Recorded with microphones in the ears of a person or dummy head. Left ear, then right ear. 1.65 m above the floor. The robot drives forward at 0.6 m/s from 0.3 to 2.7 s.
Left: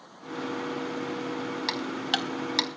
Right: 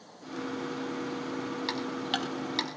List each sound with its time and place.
1.7 s ticking: 15° left (ahead or behind), 2 m; by 2.7 s 20° left (ahead or behind), 1.6 m